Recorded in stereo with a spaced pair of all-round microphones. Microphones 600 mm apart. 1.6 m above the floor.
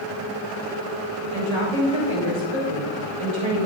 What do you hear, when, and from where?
1.3 s a woman speaking: 50° right (ahead or behind), 4.5 m